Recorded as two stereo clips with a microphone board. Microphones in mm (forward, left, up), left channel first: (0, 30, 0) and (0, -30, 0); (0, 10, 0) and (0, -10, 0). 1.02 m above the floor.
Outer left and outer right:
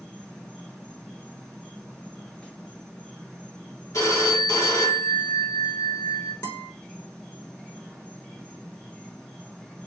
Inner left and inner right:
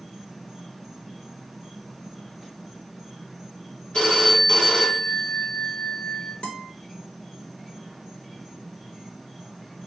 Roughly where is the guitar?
Left.